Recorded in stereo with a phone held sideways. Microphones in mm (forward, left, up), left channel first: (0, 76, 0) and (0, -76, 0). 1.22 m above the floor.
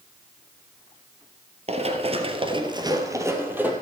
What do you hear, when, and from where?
1.7 s running footsteps: 40° right (ahead or behind), 1.6 m; by 3.7 s 10° right (ahead or behind), 2 m